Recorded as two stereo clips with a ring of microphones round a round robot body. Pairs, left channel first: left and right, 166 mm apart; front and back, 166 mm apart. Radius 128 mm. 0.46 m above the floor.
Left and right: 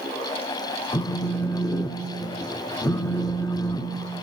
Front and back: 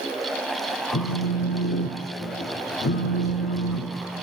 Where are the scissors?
I don't hear scissors.